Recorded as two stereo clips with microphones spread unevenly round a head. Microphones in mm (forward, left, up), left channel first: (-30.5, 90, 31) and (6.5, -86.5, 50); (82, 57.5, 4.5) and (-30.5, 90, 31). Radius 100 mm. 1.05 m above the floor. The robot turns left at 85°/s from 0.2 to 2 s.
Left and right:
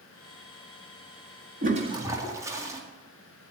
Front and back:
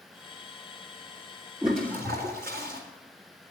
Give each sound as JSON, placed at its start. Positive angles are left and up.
{"t": 1.6, "sound": "a toilet flushing", "azimuth_deg": -120, "distance_m": 1.9}